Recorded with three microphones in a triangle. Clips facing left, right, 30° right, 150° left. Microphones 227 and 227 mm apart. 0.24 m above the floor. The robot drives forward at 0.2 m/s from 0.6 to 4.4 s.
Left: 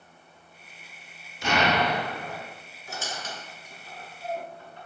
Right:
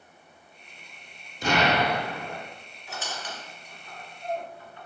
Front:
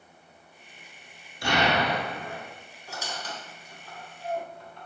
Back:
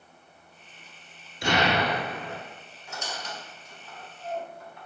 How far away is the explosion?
About 0.8 m.